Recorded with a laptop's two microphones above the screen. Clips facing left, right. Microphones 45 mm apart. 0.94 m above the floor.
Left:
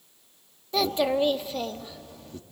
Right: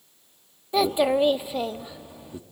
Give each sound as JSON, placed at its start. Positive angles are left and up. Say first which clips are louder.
{"t": 0.7, "sound": "a child speaking", "louder": "right 3 dB", "side_deg": -15, "distance_m": 1.2}